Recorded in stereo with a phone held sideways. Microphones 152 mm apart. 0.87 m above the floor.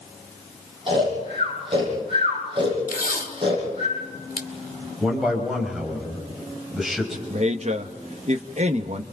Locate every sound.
0.9 s snoring: 35° right (ahead or behind), 8.5 m
2.9 s tape being pulled: 80° left, 2 m
5.0 s a man speaking: 5° right (ahead or behind), 5.5 m
7.3 s a man speaking: 50° right (ahead or behind), 1.1 m